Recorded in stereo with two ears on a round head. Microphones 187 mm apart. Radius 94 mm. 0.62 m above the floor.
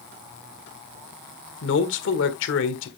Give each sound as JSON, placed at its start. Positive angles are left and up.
{"t": 1.6, "sound": "a man speaking", "side_deg": 65, "distance_m": 1.7}